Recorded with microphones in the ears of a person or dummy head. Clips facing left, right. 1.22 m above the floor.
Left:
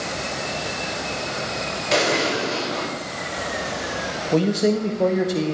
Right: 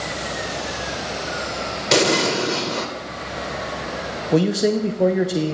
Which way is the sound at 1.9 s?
65° right (ahead or behind).